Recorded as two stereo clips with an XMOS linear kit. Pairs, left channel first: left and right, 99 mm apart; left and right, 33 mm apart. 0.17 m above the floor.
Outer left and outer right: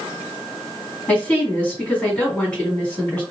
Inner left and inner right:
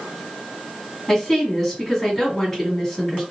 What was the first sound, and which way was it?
A woman speaking, 15° left (ahead or behind).